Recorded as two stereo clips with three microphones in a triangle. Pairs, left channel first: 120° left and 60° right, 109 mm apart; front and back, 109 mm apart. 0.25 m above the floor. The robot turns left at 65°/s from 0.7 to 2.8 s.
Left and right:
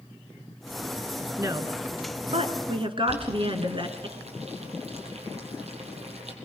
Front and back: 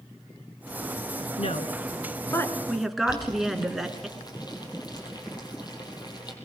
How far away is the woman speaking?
About 2.5 m.